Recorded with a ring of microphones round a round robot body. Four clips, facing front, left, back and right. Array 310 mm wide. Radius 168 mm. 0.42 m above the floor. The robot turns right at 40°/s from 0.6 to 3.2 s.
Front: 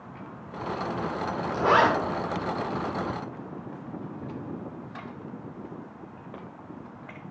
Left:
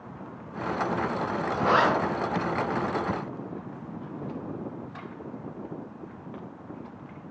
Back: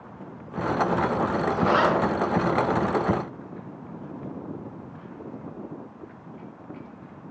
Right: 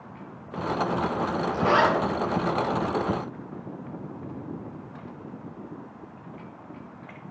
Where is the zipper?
20° right, 0.6 m; by 1.9 s 5° right, 0.6 m.